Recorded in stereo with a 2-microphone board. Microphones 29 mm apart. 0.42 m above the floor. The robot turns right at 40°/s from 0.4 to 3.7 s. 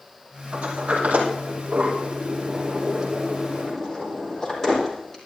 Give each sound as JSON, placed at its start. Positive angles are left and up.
{"t": 0.5, "sound": "a sliding door", "side_deg": -70, "distance_m": 5.5}